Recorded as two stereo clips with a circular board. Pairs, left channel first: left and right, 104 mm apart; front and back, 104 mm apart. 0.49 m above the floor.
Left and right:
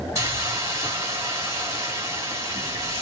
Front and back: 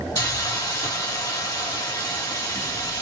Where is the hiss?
45° right, 1.9 m.